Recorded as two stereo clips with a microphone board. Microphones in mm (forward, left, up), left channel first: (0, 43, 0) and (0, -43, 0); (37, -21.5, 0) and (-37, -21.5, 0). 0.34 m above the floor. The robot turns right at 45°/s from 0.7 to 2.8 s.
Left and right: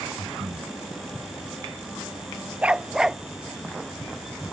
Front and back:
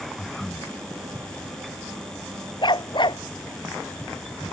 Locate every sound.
0.2 s breathing: 90° right; by 0.8 s 85° right
2.6 s a dog barking: 15° right; by 3.2 s 5° right